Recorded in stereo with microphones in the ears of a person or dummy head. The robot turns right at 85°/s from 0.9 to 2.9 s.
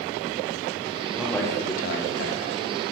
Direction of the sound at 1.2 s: 10° right.